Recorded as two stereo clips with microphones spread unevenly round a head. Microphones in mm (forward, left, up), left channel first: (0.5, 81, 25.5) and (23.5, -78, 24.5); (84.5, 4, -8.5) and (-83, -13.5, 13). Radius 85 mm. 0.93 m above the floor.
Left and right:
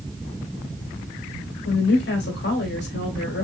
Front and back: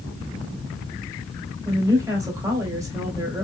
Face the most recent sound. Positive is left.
turn(degrees=110)